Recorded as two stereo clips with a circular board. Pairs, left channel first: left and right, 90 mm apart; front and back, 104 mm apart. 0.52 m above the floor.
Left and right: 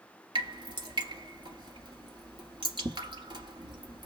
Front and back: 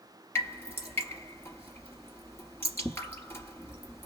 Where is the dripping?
65° right, 1.1 m.